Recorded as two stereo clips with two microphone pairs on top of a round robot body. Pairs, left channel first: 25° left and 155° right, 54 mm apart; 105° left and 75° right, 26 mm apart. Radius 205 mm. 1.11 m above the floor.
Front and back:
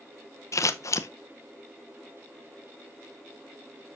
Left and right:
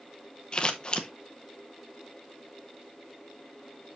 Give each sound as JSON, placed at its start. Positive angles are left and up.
{"t": 0.5, "sound": "scissors", "azimuth_deg": 50, "distance_m": 0.7}